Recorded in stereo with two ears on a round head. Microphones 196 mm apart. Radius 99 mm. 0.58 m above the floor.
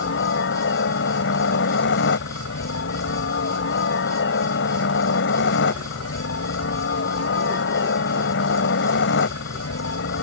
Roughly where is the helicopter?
Left.